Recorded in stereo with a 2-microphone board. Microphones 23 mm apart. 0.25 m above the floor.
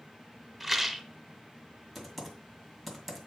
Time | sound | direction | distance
0.6 | a rattle | centre (ahead or behind) | 1.1 m
1.9 | typing on a keyboard | 5° left (ahead or behind) | 1.9 m